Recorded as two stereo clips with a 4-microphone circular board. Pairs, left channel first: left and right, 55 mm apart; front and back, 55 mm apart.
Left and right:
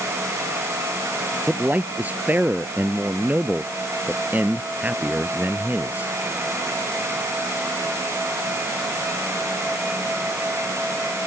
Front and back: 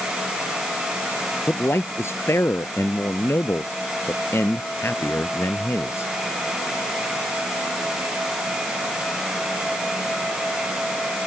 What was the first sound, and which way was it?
A man speaking, 35° right.